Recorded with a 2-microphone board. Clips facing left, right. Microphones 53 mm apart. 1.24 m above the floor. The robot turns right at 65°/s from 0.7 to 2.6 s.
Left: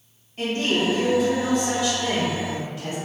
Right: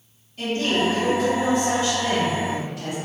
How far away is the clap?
No clap in this recording.